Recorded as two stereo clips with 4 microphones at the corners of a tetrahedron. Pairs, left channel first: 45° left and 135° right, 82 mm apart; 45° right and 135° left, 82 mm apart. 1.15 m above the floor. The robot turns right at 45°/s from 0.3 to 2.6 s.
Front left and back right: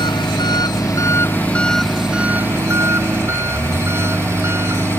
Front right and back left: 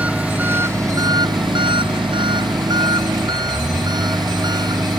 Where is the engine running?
60° left; by 5.0 s 165° left.